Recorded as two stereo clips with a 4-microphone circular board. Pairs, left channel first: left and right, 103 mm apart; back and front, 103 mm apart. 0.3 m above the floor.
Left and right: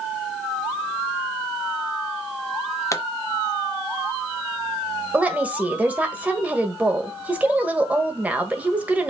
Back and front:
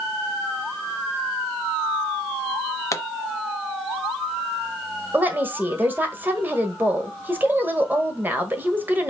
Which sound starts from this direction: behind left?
A pop, at 2.9 s.